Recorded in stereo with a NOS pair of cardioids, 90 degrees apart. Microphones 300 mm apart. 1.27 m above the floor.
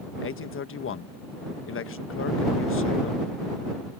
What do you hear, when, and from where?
0.2 s a man speaking: 45° left